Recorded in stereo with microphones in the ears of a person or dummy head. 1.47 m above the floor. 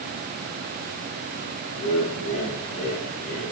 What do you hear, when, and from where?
1.8 s laughter: 85° left, 1.8 m